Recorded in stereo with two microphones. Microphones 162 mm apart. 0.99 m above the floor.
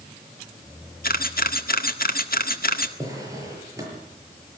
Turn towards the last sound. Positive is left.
turn(degrees=-20)  # may be behind; listen again after turning